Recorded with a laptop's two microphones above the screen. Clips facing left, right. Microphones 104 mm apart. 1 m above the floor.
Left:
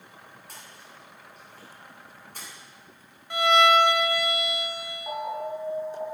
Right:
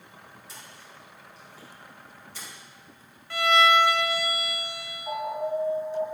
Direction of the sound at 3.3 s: 20° left (ahead or behind).